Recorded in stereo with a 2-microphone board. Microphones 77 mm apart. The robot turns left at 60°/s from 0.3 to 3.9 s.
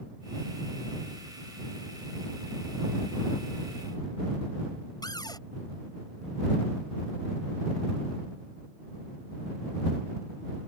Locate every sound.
5.0 s a cupboard door: 65° left (ahead or behind)